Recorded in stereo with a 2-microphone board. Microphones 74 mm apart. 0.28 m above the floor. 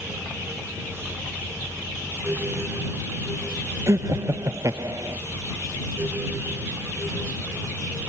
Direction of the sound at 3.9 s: 40° right (ahead or behind).